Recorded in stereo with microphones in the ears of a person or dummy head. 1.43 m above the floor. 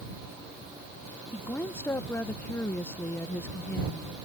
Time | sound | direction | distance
1.3 | a woman speaking | 15° left (ahead or behind) | ?